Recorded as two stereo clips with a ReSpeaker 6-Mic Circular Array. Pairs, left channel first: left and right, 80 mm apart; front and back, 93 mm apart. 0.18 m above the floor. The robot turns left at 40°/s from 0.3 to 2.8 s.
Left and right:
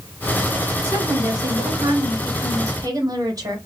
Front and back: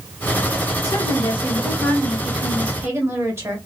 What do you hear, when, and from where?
0.8 s a woman speaking: 40° right, 2 m; by 3.6 s 120° right, 2 m